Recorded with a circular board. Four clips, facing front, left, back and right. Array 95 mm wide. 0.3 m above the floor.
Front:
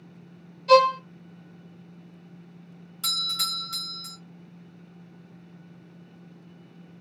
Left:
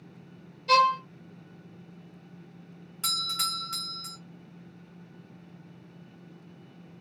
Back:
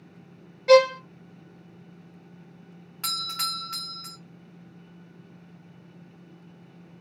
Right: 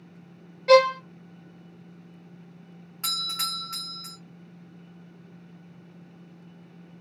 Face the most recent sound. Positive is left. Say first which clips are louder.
# left 1 dB, back 2 dB
turn(degrees=-160)